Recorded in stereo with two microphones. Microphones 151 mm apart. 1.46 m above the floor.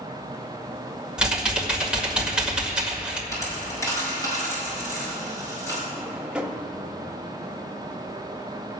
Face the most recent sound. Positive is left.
turn(degrees=-5)  # may be behind; listen again after turning